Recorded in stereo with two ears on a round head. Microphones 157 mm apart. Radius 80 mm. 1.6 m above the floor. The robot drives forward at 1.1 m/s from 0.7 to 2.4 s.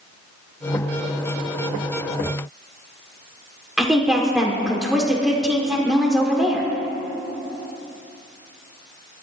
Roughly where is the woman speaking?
Centre.